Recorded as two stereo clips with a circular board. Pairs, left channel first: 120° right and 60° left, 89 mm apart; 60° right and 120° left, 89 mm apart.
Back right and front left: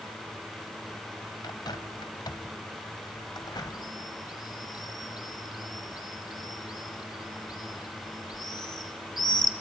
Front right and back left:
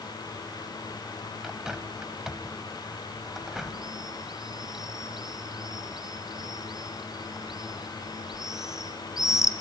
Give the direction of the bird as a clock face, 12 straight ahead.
5 o'clock.